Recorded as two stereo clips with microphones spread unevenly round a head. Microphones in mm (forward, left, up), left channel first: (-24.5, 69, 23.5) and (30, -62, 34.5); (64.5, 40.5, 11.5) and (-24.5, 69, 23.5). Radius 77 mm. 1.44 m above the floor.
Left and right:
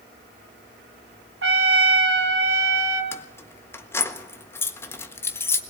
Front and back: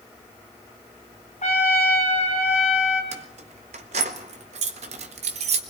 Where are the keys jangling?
170° right, 1.4 m.